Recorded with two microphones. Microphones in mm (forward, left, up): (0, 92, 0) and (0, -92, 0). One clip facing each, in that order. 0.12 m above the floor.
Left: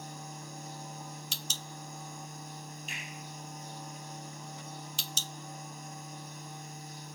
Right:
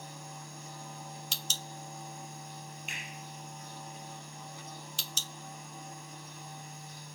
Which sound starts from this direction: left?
A finger snap, at 2.9 s.